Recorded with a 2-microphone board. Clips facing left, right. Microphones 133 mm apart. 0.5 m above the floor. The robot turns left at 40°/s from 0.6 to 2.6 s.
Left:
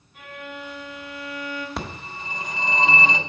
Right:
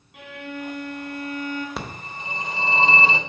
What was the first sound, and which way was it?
A violin, 90° right.